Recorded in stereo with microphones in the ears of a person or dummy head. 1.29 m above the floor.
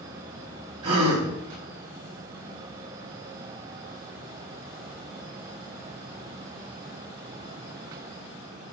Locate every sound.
0.8 s a gasp: 30° right (ahead or behind), 0.8 m